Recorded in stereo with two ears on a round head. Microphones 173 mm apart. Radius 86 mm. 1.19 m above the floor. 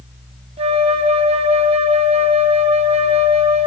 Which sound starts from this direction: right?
A flute, at 0.6 s.